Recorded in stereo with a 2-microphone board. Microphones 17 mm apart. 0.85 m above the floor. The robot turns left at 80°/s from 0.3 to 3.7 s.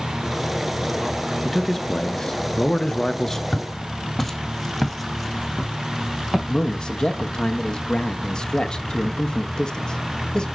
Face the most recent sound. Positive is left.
turn(degrees=50)  # may be behind; listen again after turning